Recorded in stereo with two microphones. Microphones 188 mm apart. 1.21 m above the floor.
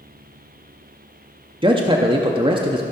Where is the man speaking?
25° right (ahead or behind), 0.6 m.